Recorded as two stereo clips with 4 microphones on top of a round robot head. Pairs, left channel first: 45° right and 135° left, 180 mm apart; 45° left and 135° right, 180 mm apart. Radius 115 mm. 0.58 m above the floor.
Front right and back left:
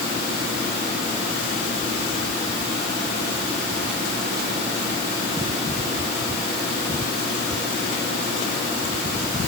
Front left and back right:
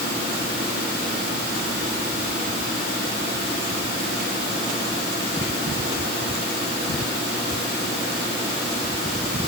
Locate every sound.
Only background noise.